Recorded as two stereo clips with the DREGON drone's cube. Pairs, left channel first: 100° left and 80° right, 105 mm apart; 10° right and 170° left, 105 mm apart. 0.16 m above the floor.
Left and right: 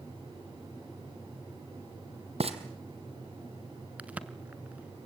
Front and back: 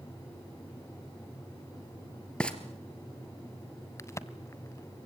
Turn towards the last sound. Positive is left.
turn(degrees=-20)